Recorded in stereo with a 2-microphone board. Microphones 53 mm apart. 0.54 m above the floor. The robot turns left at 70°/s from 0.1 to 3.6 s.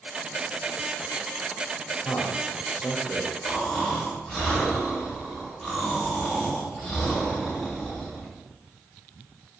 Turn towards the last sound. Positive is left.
turn(degrees=5)  # may be behind; listen again after turning